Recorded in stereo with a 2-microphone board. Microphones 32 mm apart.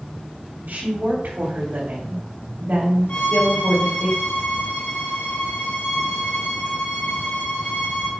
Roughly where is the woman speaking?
Right.